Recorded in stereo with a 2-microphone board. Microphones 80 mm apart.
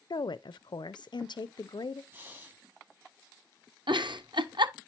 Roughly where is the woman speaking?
Left.